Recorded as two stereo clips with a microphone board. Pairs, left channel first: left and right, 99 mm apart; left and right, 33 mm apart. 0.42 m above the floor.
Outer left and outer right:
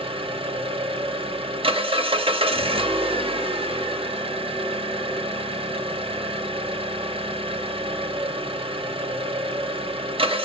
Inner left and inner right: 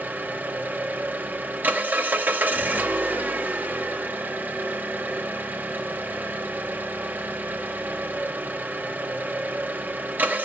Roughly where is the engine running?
Right.